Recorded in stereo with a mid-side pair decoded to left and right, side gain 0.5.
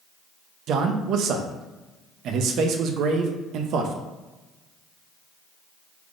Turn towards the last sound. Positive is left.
turn(degrees=-65)